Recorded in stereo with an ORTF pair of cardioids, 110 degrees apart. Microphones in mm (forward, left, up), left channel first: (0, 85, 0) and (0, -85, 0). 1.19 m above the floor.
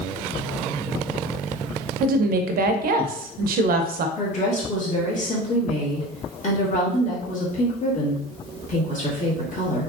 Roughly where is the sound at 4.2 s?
Ahead left.